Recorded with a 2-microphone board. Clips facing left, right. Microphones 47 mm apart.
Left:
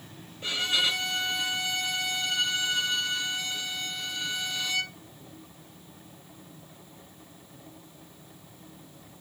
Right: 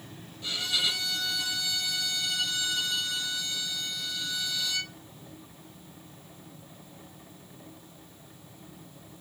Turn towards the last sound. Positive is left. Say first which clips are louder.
# left 3 dB
turn(degrees=40)  # may be behind; listen again after turning